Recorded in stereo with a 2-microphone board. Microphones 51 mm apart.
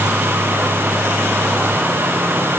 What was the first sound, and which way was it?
Only background noise.